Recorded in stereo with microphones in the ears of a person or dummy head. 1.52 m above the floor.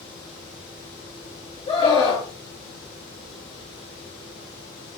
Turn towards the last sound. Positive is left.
turn(degrees=30)  # may be behind; listen again after turning